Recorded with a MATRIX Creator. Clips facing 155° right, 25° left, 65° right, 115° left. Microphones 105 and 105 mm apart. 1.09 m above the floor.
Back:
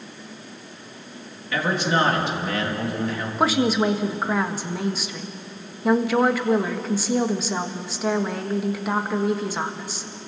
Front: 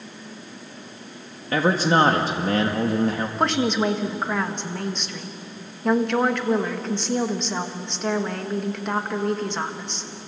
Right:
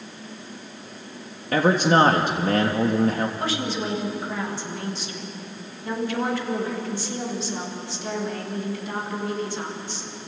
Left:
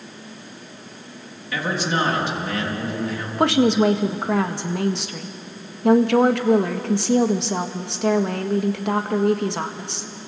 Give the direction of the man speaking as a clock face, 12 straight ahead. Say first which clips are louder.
Front 3 dB, right 6 dB; 1 o'clock.